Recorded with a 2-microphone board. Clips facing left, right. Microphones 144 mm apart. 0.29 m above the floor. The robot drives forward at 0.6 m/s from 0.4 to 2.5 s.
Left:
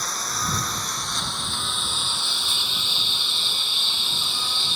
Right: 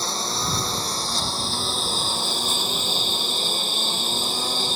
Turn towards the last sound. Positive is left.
turn(degrees=-45)  # may be behind; listen again after turning